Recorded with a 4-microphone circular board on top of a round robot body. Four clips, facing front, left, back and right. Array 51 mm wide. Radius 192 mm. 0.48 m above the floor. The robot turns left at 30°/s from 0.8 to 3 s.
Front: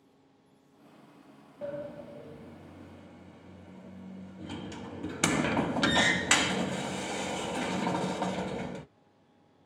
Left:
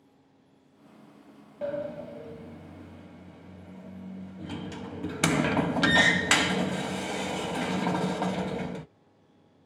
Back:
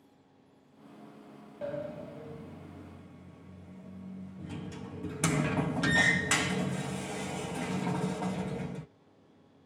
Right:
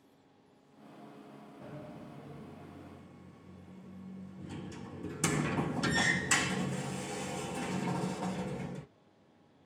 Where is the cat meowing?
No cat meowing in this recording.